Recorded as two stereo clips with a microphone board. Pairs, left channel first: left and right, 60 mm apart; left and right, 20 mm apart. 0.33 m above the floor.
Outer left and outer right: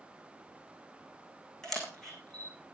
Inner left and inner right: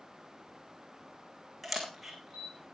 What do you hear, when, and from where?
1.6 s a camera shutter: 5° left (ahead or behind), 4 m